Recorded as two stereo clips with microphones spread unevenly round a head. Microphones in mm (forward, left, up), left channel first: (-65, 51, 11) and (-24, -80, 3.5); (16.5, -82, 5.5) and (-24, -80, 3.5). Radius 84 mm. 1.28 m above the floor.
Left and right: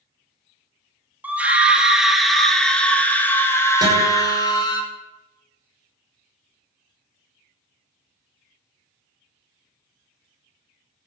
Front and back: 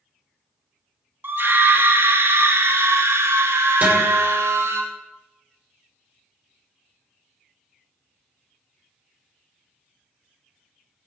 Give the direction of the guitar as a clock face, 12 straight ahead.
5 o'clock.